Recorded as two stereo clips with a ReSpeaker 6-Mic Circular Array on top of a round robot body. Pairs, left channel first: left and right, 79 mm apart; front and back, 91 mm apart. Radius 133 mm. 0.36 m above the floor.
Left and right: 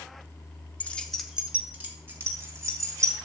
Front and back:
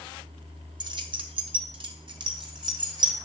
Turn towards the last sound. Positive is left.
turn(degrees=-135)